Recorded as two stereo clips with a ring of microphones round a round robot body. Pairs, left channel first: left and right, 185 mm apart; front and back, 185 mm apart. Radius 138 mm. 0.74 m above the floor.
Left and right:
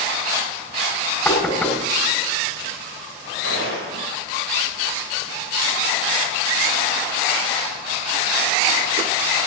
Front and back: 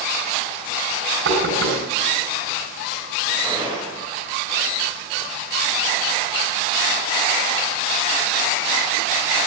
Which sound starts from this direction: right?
A gunshot, at 3.4 s.